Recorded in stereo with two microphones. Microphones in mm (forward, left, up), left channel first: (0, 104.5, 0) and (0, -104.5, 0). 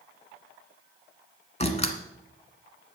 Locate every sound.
1.6 s a door slam: 30° left (ahead or behind), 1.4 m